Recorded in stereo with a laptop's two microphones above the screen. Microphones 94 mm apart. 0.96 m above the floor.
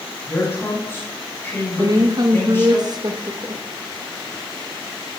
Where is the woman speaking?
45° right (ahead or behind), 0.8 m.